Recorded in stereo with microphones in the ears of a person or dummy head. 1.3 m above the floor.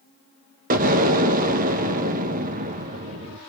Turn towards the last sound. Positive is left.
turn(degrees=-45)  # may be behind; listen again after turning